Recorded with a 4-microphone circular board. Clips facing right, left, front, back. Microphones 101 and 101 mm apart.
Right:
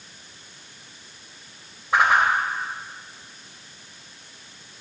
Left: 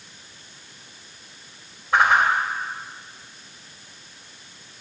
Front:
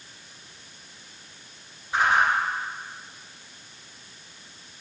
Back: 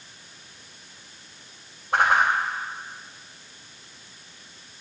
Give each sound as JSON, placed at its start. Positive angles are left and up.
{"t": 1.9, "sound": "a whoosh", "azimuth_deg": 180, "distance_m": 2.5}